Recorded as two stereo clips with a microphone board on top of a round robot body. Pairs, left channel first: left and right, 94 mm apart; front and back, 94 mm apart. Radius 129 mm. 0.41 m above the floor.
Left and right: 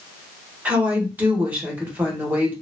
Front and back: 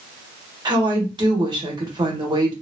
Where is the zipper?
No zipper in this recording.